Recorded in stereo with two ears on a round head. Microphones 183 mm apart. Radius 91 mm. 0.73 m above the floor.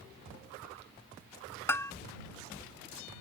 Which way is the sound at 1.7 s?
15° left (ahead or behind).